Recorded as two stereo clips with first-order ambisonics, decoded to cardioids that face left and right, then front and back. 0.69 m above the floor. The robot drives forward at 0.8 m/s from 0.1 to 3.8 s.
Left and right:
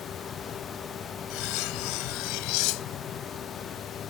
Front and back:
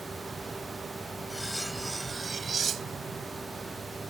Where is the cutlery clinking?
85° left; by 3.2 s 125° left.